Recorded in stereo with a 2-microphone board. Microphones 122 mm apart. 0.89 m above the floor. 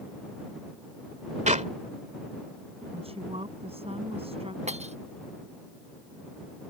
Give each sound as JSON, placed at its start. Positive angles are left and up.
{"t": 1.5, "sound": "a clap", "side_deg": -80}
{"t": 2.9, "sound": "a woman speaking", "side_deg": -55}
{"t": 4.7, "sound": "breaking glass", "side_deg": -65}